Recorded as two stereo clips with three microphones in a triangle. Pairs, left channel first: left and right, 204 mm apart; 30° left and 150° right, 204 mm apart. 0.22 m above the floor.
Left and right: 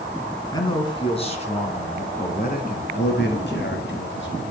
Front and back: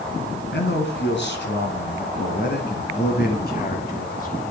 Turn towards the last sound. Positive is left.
turn(degrees=75)